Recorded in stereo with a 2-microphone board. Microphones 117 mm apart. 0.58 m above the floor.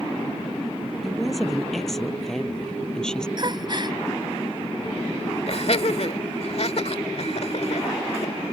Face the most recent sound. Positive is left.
turn(degrees=65)  # may be behind; listen again after turning